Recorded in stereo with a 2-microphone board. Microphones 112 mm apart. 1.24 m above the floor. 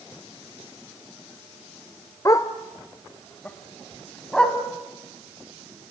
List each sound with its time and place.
2.2 s a dog barking: 30° left (ahead or behind), 1.0 m; by 4.6 s 5° left (ahead or behind), 2.5 m